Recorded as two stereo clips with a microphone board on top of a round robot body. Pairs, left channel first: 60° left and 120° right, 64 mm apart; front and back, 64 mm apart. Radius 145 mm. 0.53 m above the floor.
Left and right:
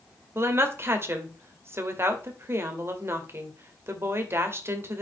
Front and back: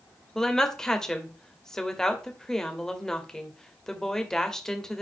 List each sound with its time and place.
0.3 s a woman speaking: 80° right, 2.0 m